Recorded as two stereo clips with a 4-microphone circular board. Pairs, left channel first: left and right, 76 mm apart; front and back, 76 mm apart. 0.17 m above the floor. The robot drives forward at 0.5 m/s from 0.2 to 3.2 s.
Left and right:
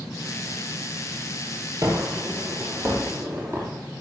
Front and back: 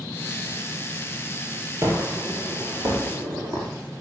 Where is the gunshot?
130° right, 2 m; by 3.7 s 145° right, 2.5 m.